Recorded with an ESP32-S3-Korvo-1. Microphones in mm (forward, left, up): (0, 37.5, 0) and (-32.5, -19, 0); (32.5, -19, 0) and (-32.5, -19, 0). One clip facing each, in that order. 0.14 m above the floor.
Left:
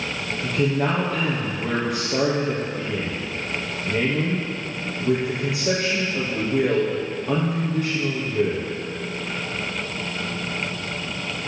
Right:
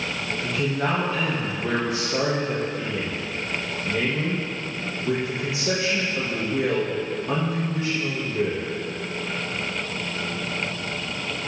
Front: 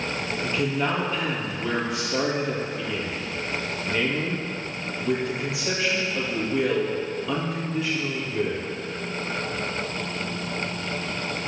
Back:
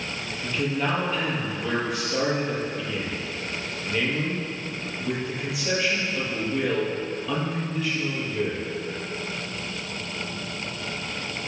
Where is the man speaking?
85° left, 3 m.